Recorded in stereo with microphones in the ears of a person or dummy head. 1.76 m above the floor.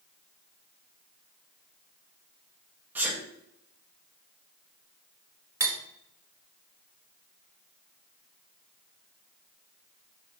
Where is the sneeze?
10° right (ahead or behind), 1.3 m.